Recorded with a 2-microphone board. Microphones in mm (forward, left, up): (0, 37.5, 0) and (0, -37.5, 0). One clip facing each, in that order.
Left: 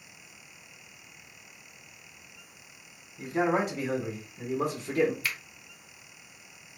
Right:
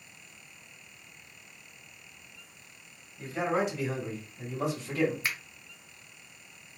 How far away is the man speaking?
About 1.8 m.